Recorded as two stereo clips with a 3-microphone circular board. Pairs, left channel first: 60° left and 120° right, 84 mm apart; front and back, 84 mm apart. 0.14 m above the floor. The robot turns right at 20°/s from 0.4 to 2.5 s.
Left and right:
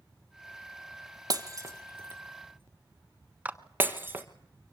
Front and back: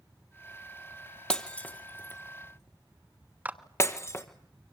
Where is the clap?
155° right, 1.1 m.